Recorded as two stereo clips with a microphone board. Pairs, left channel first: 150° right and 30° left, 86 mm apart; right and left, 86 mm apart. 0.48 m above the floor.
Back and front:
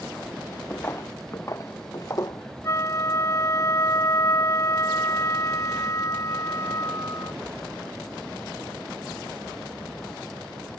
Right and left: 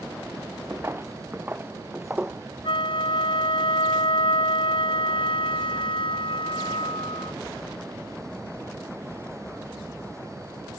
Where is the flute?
95° right.